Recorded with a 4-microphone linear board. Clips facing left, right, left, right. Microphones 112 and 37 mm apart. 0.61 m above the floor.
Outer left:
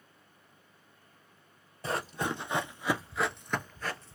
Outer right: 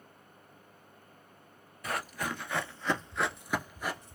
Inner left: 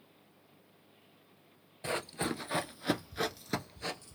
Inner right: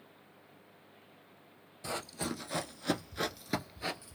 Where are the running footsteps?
30° left (ahead or behind), 0.8 m; by 4.2 s 20° right (ahead or behind), 0.8 m.